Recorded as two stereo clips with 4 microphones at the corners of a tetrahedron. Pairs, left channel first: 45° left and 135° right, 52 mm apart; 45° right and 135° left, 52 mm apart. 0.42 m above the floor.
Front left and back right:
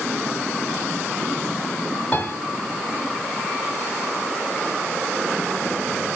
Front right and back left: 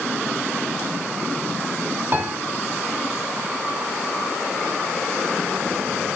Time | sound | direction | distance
2.1 | a piano | 110° left | 2.5 m